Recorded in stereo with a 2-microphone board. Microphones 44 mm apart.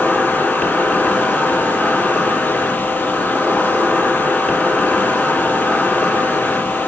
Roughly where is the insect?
Left.